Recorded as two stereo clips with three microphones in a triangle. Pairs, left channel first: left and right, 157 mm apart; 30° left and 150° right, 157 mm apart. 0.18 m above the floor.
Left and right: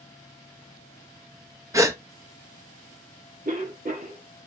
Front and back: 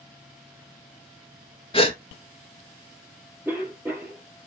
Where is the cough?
70° right, 4.5 m.